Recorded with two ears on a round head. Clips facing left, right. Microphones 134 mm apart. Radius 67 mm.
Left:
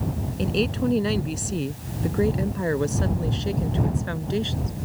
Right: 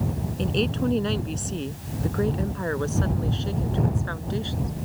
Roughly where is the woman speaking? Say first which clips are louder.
Left 1 dB; centre.